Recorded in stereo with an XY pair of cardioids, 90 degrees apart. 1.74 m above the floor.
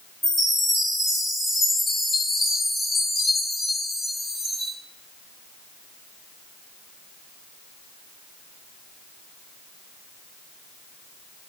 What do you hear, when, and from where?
0.2 s a chime: 40° left, 2.0 m